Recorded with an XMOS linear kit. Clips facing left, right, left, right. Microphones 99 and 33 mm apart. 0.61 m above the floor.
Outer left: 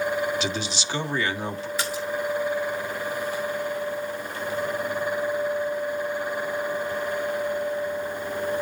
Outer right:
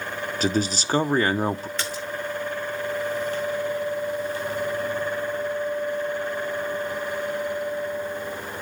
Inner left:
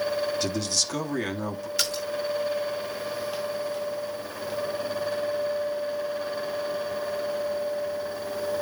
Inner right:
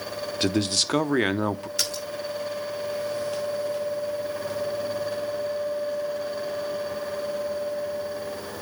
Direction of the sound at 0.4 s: 40° right (ahead or behind).